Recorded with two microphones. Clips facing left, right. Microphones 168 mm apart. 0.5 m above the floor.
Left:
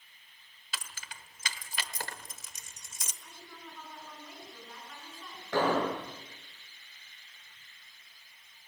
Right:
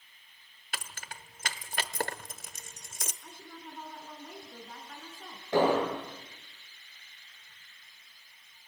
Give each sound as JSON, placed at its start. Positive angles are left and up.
{"t": 0.7, "sound": "keys jangling", "side_deg": -55, "distance_m": 1.1}
{"t": 3.2, "sound": "a woman speaking", "side_deg": -50, "distance_m": 6.0}
{"t": 5.5, "sound": "an explosion", "side_deg": -20, "distance_m": 9.5}